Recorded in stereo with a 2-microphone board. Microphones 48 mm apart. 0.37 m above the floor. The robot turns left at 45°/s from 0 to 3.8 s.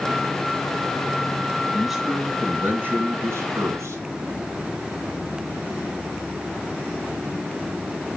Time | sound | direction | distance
1.7 | a man speaking | 5° left | 3 m